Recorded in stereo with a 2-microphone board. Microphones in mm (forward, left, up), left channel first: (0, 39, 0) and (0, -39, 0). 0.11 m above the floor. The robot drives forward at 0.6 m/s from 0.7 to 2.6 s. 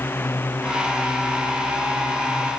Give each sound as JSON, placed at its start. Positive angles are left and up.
{"t": 0.0, "sound": "a drone", "side_deg": 25}